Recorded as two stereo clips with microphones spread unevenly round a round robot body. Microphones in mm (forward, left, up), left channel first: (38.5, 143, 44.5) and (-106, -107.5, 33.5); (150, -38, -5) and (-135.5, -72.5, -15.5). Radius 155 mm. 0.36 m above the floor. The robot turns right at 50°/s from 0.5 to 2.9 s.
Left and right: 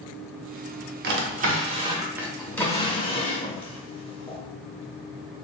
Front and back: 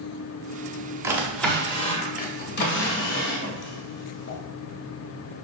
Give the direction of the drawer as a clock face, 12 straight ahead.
3 o'clock.